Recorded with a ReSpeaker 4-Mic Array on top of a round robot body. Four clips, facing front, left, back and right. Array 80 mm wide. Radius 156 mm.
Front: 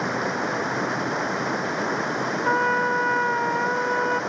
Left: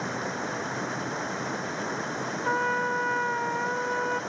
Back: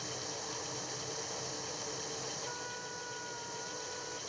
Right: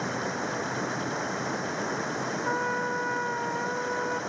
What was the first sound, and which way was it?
Running water, straight ahead.